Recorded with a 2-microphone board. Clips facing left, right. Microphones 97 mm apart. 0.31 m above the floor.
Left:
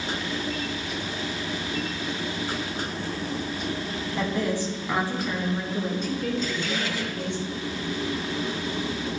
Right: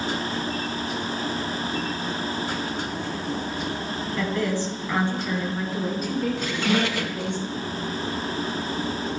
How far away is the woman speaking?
About 2.5 m.